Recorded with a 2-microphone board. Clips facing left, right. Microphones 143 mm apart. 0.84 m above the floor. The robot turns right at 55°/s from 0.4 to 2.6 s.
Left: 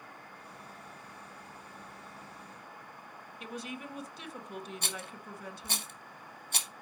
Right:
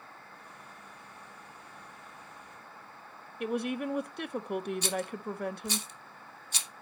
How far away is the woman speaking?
About 0.9 m.